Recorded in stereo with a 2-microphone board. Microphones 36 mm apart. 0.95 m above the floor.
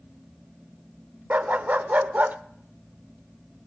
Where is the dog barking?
50° right (ahead or behind), 0.8 m.